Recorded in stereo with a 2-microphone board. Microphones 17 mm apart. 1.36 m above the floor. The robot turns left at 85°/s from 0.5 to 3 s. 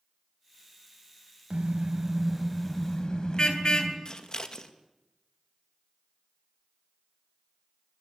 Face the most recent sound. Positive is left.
turn(degrees=45)  # may be behind; listen again after turning